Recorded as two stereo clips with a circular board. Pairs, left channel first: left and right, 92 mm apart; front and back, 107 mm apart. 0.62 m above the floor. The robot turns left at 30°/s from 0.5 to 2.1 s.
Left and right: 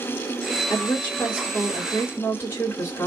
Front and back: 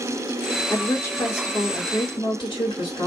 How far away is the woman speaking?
About 1.7 m.